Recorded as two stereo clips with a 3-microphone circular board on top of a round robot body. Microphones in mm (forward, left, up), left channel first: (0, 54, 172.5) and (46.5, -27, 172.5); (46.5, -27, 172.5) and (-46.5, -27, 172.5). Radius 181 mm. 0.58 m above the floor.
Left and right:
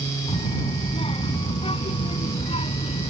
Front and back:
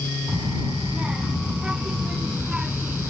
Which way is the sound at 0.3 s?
100° left.